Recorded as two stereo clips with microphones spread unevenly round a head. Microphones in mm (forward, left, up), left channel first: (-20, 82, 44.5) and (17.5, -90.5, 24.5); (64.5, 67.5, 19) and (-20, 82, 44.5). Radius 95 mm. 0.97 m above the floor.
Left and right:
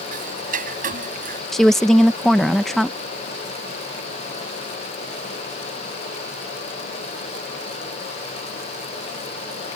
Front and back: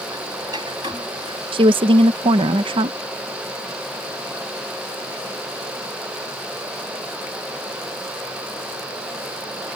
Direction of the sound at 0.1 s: 125° right.